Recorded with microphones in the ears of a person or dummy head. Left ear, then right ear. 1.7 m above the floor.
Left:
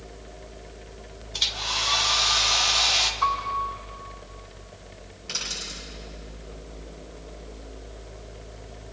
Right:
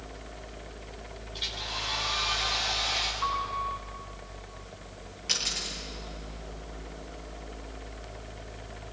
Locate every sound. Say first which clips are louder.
1.3 s a hair dryer: left 8 dB; 50° left (ahead or behind), 1.8 m
3.2 s a piano: left 5 dB; 45° left (ahead or behind), 9.5 m
5.3 s a dropped coin: right 1 dB; 20° right (ahead or behind), 9.5 m